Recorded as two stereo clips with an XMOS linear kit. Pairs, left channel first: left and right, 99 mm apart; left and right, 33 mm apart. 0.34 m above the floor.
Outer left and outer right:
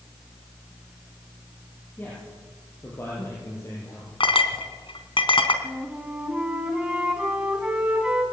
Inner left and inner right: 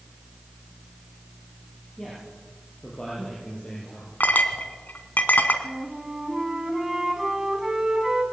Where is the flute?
10° right (ahead or behind), 3.5 m.